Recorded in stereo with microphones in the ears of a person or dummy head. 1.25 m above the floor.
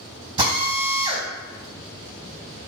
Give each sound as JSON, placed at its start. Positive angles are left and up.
{"t": 0.4, "sound": "a drill", "side_deg": -25, "distance_m": 3.5}